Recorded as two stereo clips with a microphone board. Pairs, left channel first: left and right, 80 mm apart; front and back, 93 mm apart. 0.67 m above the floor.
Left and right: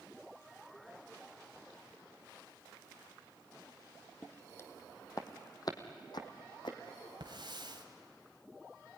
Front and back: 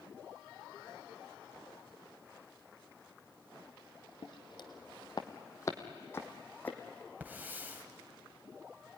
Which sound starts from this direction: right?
A hiss, at 7.2 s.